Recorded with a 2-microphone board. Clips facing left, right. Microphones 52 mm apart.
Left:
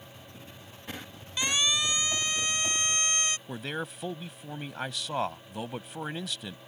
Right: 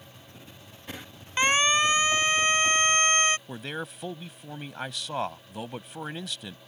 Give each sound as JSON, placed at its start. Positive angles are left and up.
{"t": 1.4, "sound": "a siren", "side_deg": -45}
{"t": 3.5, "sound": "a man speaking", "side_deg": 0}